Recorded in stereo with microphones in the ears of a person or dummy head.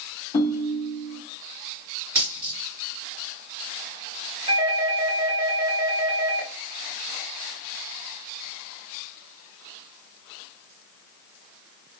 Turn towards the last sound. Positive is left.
turn(degrees=-25)  # may be behind; listen again after turning